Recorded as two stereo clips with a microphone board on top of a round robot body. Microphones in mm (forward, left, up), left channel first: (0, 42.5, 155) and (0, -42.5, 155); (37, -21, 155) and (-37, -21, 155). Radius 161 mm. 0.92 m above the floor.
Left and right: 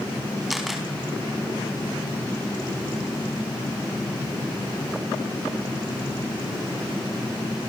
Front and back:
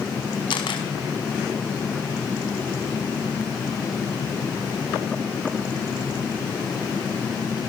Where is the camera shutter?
Straight ahead, 4.5 m.